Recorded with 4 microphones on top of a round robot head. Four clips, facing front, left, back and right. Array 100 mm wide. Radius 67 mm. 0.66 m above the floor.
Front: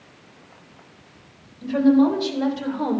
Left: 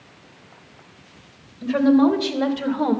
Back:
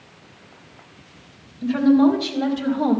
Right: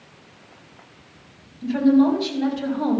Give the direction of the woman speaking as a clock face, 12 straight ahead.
9 o'clock.